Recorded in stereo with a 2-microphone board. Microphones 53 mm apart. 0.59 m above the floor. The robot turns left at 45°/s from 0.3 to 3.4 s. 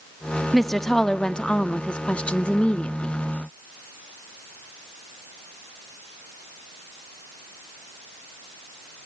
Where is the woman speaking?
Centre (ahead or behind), 0.5 m; by 3.1 s 20° left (ahead or behind), 0.5 m.